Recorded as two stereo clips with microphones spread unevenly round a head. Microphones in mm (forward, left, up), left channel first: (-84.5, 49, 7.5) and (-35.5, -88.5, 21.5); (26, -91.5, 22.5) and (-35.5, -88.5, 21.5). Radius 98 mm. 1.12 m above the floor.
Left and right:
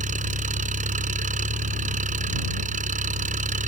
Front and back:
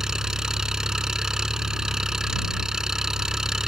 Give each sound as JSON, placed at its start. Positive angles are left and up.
{"t": 0.0, "sound": "an engine running", "azimuth_deg": -100}